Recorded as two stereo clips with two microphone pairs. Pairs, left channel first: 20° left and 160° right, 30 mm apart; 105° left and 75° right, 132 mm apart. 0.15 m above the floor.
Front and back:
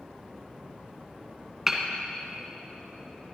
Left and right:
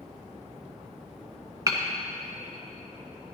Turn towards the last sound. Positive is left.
turn(degrees=-85)